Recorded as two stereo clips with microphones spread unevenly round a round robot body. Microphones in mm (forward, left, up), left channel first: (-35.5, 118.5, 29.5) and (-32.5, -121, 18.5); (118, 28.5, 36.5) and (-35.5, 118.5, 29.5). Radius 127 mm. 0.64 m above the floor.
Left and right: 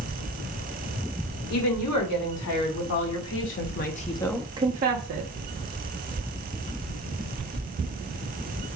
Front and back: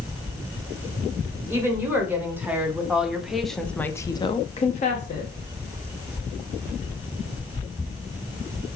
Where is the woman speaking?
70° left, 2.5 m; by 5.3 s 80° right, 0.9 m.